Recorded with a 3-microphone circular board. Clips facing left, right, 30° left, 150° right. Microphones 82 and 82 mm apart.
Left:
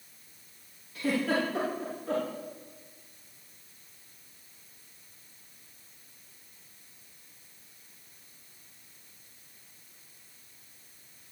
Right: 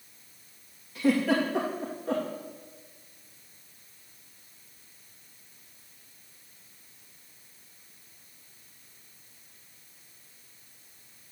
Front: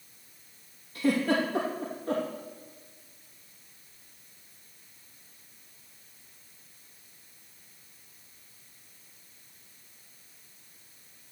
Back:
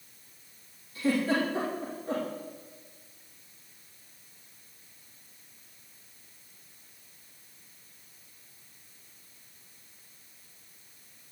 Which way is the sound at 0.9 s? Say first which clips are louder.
Right 4 dB, front 1 dB; straight ahead.